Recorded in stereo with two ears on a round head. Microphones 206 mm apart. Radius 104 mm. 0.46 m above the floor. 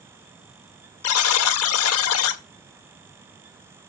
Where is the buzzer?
70° left (ahead or behind), 0.8 m.